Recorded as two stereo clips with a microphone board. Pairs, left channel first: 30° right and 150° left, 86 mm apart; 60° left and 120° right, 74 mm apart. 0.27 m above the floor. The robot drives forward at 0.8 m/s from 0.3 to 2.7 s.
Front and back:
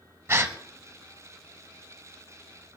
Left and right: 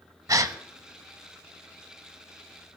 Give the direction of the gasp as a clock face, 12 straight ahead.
5 o'clock.